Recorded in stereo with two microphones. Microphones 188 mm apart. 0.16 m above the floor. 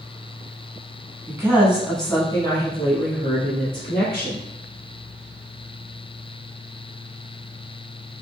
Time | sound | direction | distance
1.3 | a woman speaking | 20° right (ahead or behind) | 1.1 m